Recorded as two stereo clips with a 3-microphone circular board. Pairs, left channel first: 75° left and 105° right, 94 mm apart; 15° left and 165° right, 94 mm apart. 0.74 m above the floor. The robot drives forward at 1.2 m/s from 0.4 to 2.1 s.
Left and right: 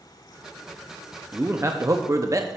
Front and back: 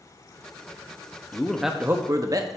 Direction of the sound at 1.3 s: 45° right.